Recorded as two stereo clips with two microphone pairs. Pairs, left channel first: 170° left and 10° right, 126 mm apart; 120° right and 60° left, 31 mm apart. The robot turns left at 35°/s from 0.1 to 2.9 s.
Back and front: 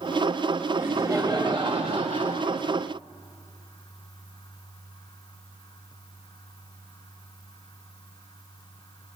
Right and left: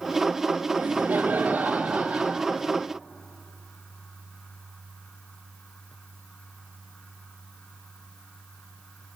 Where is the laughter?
65° left, 1.5 m; by 2.6 s straight ahead, 1.5 m.